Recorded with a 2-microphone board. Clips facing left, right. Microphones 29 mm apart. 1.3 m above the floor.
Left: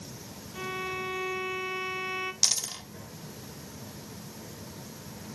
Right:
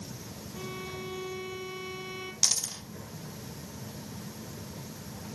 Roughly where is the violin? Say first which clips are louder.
Left 6 dB; left.